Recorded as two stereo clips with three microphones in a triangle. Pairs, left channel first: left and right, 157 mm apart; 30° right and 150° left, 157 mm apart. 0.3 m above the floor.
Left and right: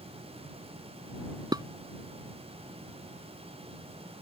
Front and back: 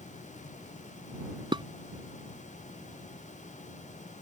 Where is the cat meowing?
No cat meowing in this recording.